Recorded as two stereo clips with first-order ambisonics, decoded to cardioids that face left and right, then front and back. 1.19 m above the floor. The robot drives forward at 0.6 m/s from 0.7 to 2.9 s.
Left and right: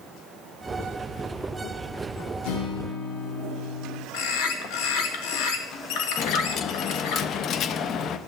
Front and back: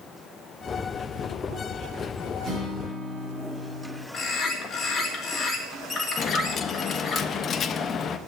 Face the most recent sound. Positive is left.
turn(degrees=50)